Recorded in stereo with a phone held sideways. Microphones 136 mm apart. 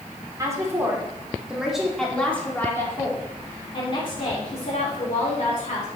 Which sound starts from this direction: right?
A woman speaking, at 0.4 s.